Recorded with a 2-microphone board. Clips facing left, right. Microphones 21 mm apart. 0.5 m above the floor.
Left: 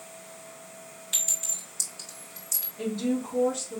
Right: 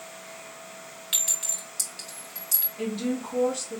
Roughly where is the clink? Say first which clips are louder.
Right 1 dB; right.